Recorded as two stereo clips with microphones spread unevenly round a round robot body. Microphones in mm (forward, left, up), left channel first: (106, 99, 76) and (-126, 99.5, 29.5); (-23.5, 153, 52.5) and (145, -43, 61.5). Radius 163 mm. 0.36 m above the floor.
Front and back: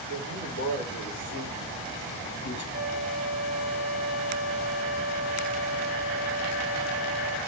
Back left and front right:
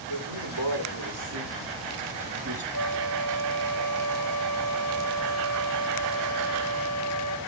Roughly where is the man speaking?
Ahead right.